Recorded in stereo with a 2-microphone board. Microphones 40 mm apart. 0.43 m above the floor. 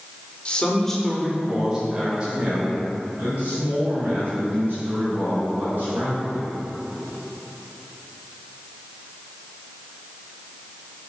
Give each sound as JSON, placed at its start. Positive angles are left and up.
{"t": 0.5, "sound": "a man speaking", "side_deg": 30, "distance_m": 1.0}